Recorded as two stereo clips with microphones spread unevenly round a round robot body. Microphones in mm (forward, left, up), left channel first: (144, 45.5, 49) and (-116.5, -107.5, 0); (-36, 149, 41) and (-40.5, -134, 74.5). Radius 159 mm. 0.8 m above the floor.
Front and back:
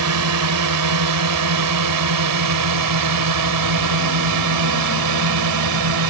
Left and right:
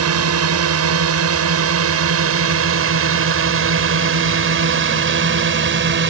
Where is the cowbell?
I don't hear a cowbell.